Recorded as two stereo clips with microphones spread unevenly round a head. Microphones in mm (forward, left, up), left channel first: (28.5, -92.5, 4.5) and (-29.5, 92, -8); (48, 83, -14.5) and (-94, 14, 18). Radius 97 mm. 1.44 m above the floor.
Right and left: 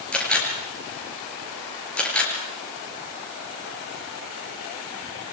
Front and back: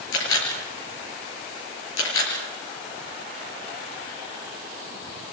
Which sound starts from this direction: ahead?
A camera shutter, at 0.1 s.